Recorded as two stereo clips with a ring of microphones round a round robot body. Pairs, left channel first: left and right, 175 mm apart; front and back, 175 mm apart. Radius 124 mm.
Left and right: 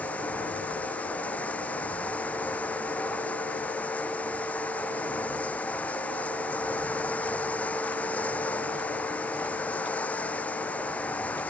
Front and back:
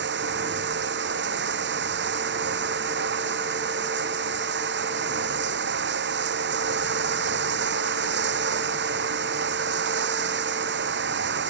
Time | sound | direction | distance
0.0 | running water | 175° left | ?